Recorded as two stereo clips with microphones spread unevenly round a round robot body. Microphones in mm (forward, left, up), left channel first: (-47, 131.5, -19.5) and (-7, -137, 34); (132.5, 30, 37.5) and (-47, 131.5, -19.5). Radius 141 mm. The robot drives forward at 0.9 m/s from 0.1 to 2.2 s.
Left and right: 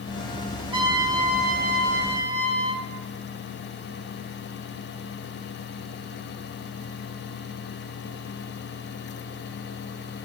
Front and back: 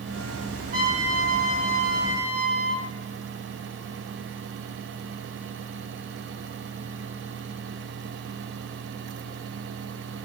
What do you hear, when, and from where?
0.7 s a trumpet: 160° right, 2 m; by 2.9 s 165° right, 3.5 m